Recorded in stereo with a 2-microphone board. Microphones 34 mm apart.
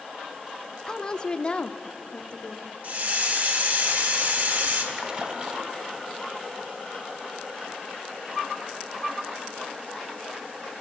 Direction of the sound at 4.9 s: 30° right (ahead or behind).